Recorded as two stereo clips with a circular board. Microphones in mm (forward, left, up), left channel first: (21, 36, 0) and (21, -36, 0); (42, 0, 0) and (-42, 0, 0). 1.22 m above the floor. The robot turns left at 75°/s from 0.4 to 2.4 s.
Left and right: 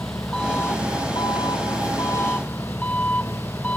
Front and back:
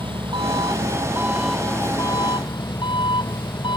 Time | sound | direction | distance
0.0 | an engine running | 170° left | ?